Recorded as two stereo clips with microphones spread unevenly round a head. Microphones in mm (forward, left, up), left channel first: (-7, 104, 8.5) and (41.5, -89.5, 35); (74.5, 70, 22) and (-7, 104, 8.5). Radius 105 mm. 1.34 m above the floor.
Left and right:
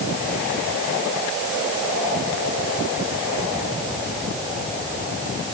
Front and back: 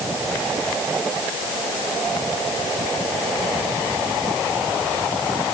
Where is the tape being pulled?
I don't hear tape being pulled.